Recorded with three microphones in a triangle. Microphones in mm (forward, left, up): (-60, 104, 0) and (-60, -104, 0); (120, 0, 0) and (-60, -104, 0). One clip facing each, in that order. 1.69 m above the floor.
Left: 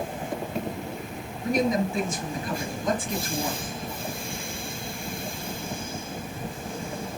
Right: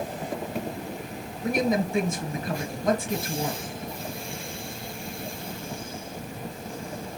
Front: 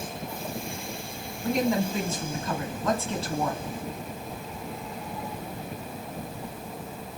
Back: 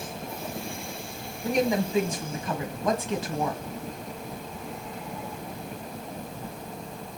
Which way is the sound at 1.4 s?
75° right.